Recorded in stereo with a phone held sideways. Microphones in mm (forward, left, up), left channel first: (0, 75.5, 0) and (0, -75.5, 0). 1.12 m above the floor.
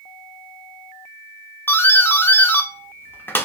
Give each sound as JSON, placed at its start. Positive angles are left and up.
{"t": 1.7, "sound": "a doorbell", "side_deg": 15, "distance_m": 0.5}